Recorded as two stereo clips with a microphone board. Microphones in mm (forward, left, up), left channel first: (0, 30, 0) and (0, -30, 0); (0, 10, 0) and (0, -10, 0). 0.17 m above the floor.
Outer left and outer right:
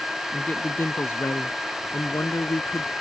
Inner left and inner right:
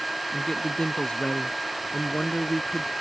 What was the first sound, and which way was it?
A man speaking, 30° left (ahead or behind).